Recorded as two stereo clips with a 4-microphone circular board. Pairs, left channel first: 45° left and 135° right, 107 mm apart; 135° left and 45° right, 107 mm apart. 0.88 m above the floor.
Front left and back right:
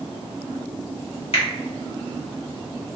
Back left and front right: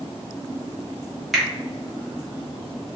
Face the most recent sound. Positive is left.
turn(degrees=45)